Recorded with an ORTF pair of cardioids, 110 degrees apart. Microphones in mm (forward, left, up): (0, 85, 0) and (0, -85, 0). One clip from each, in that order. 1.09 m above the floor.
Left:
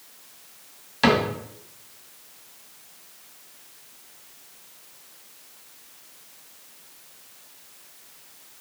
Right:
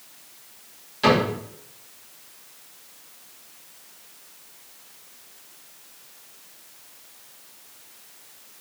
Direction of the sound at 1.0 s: 35° left.